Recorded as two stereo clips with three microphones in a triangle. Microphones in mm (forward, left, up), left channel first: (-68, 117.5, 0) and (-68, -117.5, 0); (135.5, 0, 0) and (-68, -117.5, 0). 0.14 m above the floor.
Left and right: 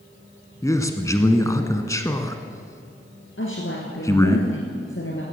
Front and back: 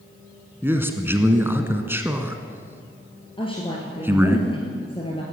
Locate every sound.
0.6 s a man speaking: 145° left, 1.2 m
3.4 s a woman speaking: 95° left, 2 m